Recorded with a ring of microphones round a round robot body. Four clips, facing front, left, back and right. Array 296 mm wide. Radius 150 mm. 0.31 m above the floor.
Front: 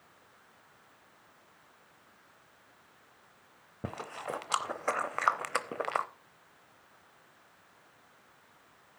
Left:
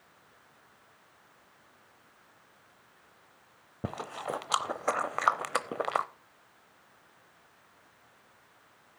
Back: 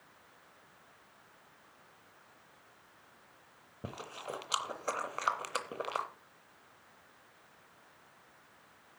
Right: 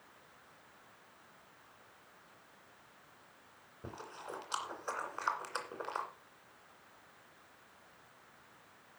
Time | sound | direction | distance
3.8 | chewing | 75° left | 0.8 m